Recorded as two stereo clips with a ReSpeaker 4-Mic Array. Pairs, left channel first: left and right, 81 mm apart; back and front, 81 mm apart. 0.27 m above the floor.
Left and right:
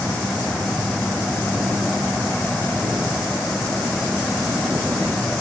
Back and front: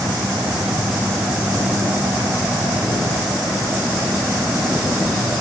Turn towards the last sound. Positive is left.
No sound to turn to.